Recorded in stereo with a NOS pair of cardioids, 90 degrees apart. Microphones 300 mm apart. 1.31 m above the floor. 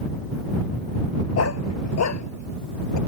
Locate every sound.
1.4 s a dog barking: 55° left; by 3.0 s 70° left